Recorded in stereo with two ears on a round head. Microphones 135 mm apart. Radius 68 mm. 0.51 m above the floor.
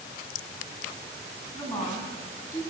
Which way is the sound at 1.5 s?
30° left (ahead or behind).